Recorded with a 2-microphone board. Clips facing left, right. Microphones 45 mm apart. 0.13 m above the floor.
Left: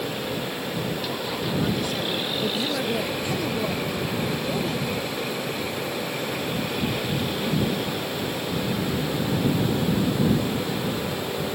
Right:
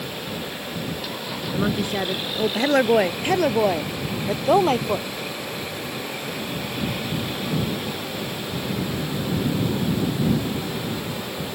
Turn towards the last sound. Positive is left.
turn(degrees=-70)  # may be behind; listen again after turning